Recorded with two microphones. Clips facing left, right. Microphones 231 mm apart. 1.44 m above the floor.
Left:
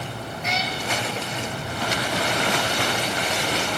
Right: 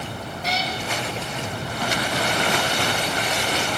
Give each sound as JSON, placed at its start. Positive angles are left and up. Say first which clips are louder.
{"t": 0.4, "sound": "a cat meowing", "louder": "right 1 dB", "side_deg": -35, "distance_m": 1.0}